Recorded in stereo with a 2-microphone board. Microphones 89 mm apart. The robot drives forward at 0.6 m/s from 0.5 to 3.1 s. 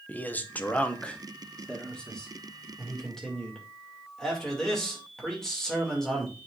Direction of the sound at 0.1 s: 20° left (ahead or behind).